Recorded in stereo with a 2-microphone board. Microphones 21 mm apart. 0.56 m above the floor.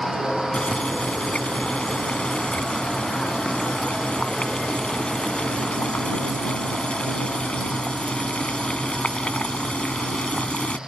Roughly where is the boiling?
Left.